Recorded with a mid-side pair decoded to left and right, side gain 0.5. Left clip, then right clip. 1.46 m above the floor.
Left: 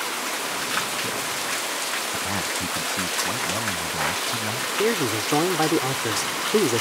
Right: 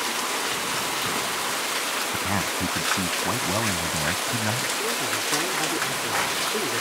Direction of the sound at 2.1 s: 15° right.